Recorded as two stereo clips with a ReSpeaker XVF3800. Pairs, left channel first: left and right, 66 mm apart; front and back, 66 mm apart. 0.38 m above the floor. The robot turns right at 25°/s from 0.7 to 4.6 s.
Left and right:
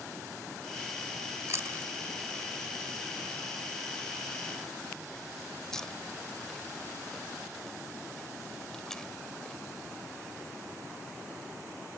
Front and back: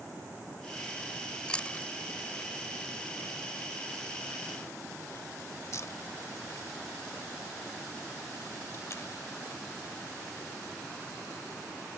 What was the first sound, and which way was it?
Chewing, 70° right.